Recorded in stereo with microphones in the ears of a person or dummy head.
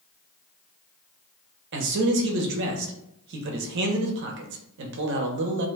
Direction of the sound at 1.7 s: 65° right (ahead or behind).